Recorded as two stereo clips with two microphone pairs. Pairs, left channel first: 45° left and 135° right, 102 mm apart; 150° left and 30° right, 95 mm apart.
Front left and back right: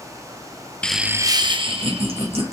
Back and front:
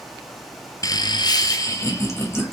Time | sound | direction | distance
0.8 | laughter | 115° left | 0.5 m